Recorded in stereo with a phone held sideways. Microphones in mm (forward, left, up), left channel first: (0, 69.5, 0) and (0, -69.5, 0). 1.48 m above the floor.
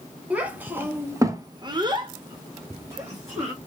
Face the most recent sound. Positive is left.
turn(degrees=-15)  # may be behind; listen again after turning